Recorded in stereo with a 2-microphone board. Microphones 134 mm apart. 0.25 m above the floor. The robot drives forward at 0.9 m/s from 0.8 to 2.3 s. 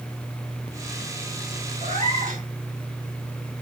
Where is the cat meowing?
60° right (ahead or behind), 2 m; by 2.4 s 70° right (ahead or behind), 2 m.